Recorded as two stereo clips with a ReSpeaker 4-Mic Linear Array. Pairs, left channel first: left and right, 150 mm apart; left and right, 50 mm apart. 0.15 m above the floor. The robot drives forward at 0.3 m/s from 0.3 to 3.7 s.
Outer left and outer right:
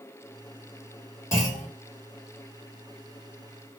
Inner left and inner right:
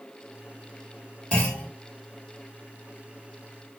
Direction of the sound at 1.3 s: 25° left (ahead or behind).